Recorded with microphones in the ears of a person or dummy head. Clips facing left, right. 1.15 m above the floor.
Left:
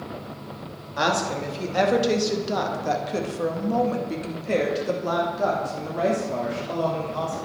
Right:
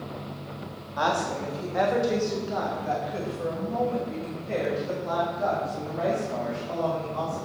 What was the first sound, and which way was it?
A woman speaking, 35° left (ahead or behind).